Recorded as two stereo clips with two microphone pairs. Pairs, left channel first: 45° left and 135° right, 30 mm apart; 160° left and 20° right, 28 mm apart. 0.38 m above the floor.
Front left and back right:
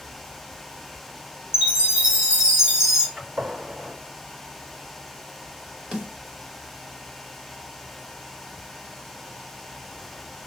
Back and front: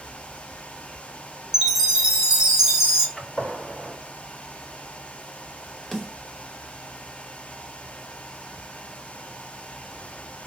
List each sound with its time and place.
1.5 s a chime: 90° right, 1.6 m
3.2 s a gunshot: 150° right, 3.5 m
5.9 s a snare drum: 125° right, 1.8 m